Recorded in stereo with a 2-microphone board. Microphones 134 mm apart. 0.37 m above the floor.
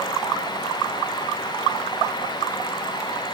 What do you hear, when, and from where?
Only background noise.